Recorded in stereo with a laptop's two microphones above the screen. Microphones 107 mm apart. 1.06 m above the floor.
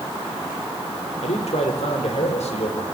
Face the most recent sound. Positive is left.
turn(degrees=80)